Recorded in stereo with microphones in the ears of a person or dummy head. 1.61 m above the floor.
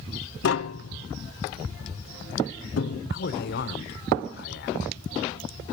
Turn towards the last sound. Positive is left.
turn(degrees=65)  # may be behind; listen again after turning